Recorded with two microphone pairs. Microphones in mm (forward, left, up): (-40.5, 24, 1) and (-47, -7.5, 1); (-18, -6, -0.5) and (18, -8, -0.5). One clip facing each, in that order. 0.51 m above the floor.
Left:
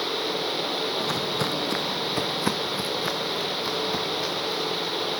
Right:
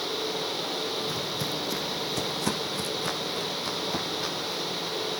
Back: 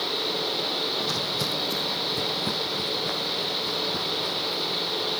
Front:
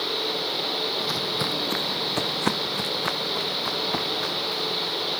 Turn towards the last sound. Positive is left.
turn(degrees=-5)